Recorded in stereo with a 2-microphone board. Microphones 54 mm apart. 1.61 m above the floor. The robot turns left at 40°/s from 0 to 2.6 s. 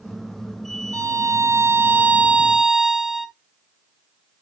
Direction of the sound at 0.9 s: 105° right.